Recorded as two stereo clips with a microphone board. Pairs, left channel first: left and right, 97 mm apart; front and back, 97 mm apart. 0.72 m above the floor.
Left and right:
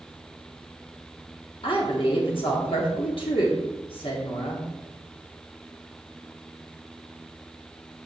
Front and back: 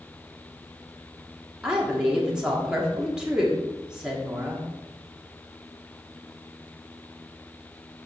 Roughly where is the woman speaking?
Left.